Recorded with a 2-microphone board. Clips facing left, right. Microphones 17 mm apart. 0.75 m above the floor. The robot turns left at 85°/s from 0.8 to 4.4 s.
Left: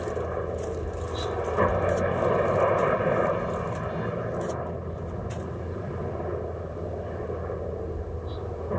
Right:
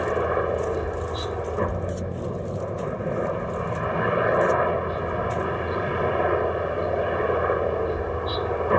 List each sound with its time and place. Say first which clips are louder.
0.0 s a helicopter: right 7 dB; 140° right; by 8.8 s 85° right